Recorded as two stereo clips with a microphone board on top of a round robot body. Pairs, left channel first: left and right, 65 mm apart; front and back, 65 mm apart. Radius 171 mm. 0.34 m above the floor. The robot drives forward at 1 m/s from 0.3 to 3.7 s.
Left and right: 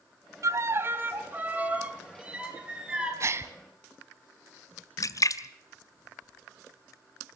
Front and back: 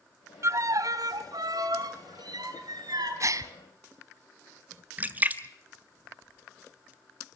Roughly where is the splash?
Behind left.